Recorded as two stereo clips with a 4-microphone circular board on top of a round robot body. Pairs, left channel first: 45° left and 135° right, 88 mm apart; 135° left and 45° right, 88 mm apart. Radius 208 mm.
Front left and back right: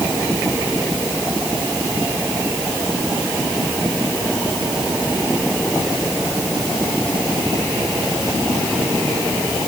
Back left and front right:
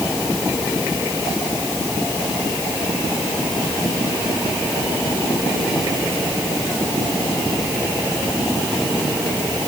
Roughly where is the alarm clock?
I don't hear an alarm clock.